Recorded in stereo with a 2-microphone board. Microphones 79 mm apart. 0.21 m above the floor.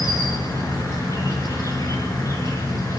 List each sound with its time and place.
0.0 s an insect: 45° left (ahead or behind), 3.5 m